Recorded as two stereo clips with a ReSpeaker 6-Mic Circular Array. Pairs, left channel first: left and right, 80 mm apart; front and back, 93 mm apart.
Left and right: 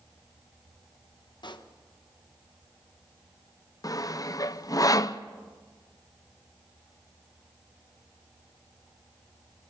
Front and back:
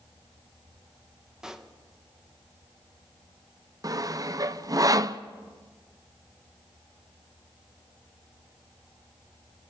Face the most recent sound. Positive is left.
turn(degrees=130)